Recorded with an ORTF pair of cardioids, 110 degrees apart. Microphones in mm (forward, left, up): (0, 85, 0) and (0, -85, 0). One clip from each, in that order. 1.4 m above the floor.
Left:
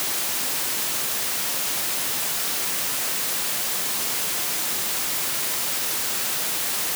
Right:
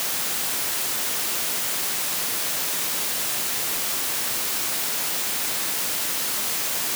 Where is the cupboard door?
I don't hear a cupboard door.